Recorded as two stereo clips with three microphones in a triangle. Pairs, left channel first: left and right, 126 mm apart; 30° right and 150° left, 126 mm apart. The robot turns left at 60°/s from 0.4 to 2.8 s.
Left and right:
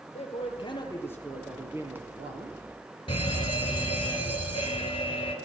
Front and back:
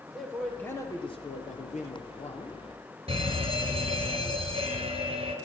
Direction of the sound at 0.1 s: 60° left.